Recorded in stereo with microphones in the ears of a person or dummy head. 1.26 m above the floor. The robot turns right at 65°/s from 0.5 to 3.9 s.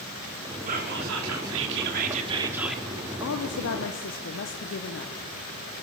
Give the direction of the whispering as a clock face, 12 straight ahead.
5 o'clock.